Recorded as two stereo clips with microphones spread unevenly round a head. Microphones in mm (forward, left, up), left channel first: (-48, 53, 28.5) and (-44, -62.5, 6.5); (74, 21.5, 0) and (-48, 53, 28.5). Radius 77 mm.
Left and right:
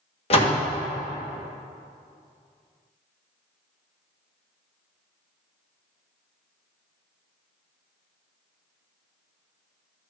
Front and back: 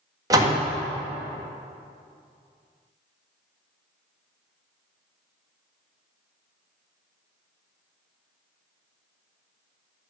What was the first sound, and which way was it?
A door slam, 110° left.